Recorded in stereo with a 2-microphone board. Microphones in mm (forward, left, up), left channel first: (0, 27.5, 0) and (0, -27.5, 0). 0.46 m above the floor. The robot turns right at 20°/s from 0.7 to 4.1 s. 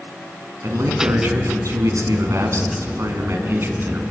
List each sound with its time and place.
0.6 s a man speaking: 105° right, 5 m; by 4.0 s 40° right, 5 m